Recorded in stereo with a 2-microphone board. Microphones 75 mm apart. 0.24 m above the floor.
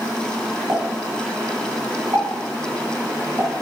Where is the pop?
45° right (ahead or behind), 1.4 m.